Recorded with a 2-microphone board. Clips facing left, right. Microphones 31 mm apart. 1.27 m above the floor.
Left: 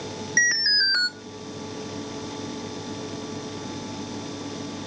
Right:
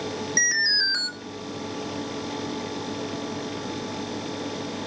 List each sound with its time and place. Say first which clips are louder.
0.4 s an alarm: left 2 dB; 15° left (ahead or behind), 1.9 m